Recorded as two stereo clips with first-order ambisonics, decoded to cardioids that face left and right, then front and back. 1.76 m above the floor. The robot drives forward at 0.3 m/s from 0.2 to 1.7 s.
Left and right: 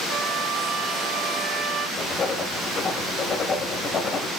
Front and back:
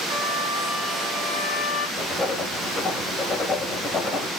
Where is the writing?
70° left, 0.7 m.